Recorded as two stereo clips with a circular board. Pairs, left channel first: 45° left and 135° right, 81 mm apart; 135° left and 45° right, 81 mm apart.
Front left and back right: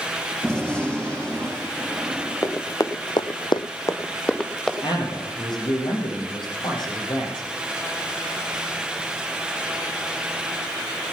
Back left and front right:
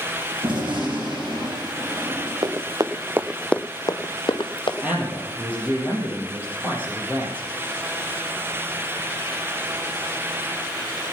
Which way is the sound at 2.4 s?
10° right.